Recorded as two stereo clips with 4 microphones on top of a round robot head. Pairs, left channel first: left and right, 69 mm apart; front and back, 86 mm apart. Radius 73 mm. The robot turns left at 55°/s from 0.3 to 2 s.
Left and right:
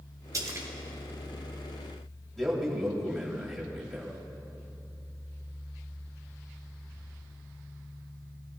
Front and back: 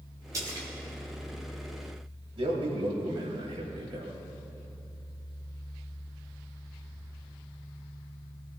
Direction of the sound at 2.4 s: Straight behind.